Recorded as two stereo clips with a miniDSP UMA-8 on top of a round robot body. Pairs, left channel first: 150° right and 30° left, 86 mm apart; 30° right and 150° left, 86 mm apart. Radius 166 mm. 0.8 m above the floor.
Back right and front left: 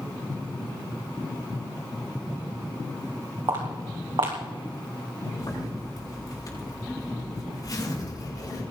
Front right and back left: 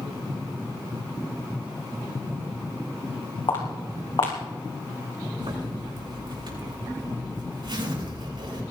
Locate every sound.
3.5 s footsteps: straight ahead, 3 m
5.4 s a zipper: 170° left, 7 m